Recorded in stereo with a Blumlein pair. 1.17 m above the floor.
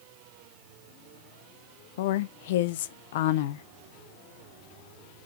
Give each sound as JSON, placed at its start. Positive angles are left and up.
{"t": 2.0, "sound": "a woman speaking", "azimuth_deg": 55, "distance_m": 0.7}